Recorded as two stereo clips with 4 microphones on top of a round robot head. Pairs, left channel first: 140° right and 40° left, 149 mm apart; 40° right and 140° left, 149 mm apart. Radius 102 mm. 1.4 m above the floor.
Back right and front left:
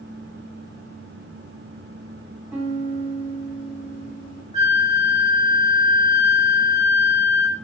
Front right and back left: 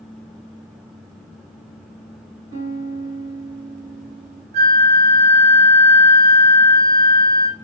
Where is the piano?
125° left, 1.6 m.